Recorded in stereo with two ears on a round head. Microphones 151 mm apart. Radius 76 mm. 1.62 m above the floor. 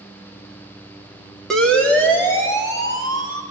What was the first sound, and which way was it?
A siren, 5° left (ahead or behind).